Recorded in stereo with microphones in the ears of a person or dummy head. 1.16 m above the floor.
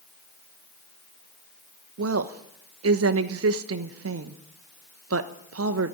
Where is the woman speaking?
65° right (ahead or behind), 1.1 m.